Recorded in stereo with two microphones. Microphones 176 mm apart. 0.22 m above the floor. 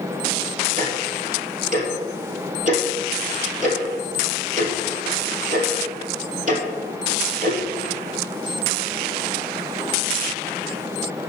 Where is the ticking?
45° right (ahead or behind), 2.5 m.